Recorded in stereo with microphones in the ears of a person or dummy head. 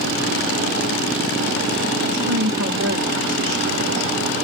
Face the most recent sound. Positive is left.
turn(degrees=-75)  # may be behind; listen again after turning